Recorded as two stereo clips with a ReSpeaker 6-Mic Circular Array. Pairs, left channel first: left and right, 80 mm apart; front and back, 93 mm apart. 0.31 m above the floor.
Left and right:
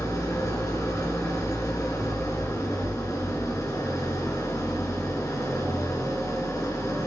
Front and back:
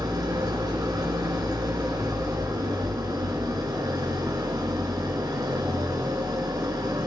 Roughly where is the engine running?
Behind left.